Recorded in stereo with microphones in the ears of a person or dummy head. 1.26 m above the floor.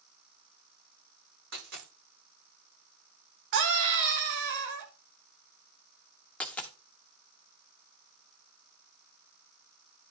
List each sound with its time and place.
1.5 s a dropped coin: 60° right (ahead or behind), 8.5 m
3.5 s a scream: 65° right (ahead or behind), 2 m
6.4 s a dropped coin: 5° left (ahead or behind), 1.0 m